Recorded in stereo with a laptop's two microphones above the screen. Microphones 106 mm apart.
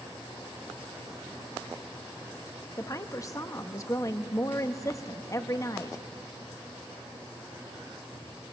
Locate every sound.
2.8 s a woman speaking: 30° left (ahead or behind), 1.0 m